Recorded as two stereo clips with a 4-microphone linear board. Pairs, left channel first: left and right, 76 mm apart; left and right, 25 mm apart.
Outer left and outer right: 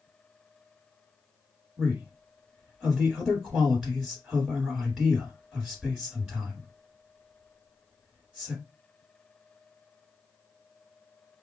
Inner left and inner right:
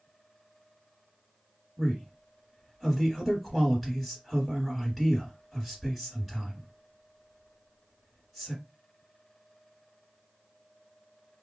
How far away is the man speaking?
About 1.5 m.